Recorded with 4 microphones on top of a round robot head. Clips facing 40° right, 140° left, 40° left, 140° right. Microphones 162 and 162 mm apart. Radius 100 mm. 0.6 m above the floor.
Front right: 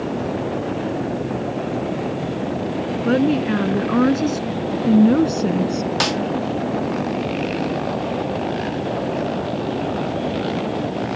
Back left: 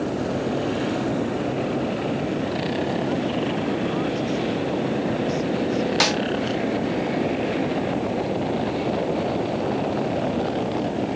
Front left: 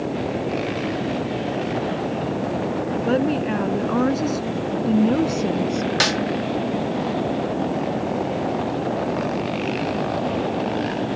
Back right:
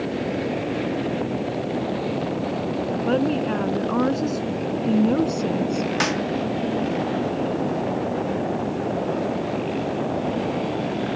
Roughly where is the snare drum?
Ahead left.